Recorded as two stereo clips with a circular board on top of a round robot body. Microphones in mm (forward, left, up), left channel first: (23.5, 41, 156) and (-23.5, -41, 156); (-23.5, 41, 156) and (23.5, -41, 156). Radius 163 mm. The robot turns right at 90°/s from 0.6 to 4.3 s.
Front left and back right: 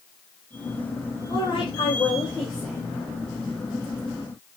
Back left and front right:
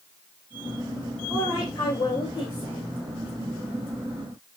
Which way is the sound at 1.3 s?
45° left.